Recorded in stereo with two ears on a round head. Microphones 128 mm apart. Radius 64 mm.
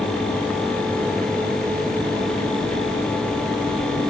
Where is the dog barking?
No dog barking in this recording.